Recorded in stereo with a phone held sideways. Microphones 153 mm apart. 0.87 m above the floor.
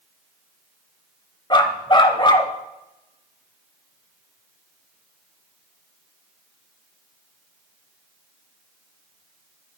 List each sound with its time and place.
1.5 s a dog barking: 30° left (ahead or behind), 0.8 m